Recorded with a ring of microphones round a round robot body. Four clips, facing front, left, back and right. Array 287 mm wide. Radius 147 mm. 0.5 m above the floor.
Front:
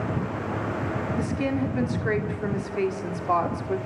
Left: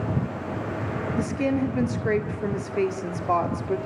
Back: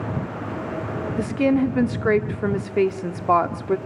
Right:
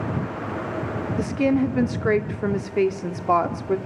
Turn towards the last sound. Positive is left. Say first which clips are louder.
# right 4 dB, back 9 dB
turn(degrees=-150)